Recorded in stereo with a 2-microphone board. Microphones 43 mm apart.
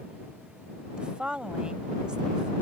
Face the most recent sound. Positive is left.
turn(degrees=-20)  # may be behind; listen again after turning